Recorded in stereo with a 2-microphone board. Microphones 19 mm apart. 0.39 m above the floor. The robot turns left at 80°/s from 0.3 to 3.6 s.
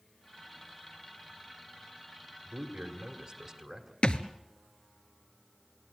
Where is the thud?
60° left (ahead or behind), 1.1 m.